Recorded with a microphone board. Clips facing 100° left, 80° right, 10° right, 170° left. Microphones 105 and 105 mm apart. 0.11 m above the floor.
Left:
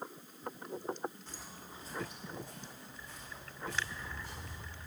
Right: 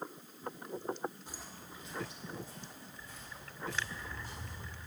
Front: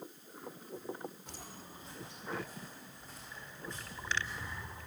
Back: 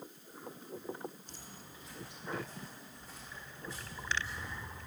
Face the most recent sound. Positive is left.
turn(degrees=90)